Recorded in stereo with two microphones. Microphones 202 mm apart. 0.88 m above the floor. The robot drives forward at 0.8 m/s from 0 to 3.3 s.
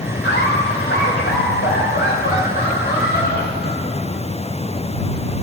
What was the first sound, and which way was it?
Laughter, 80° left.